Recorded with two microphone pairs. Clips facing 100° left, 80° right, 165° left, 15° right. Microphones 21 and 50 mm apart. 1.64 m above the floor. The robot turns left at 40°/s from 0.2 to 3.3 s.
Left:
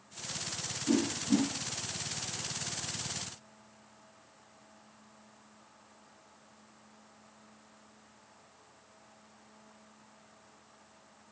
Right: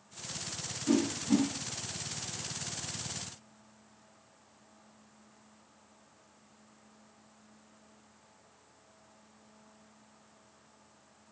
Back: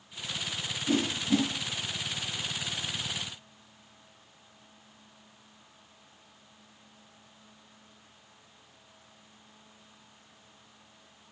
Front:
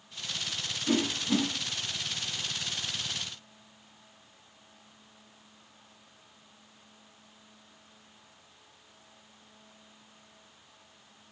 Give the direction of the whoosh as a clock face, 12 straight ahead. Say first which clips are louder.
Right 1 dB, back 1 dB; 2 o'clock.